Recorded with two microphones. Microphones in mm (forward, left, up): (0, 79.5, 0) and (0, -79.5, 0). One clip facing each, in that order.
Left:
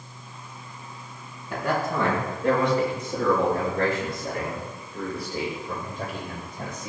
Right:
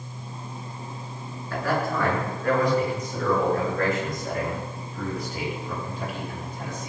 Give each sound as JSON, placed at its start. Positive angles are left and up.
{"t": 1.5, "sound": "a man speaking", "side_deg": 20, "distance_m": 6.5}